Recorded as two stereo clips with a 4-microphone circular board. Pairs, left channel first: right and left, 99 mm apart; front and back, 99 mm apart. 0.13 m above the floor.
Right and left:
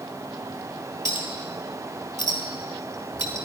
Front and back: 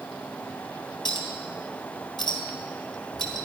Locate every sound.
1.1 s a clink: 35° left, 2 m